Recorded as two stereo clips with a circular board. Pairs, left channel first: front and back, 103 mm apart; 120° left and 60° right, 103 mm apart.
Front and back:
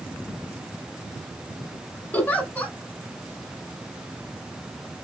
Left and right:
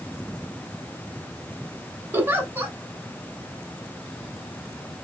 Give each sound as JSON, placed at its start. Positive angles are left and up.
{"t": 2.1, "sound": "a giggle", "azimuth_deg": -45, "distance_m": 0.7}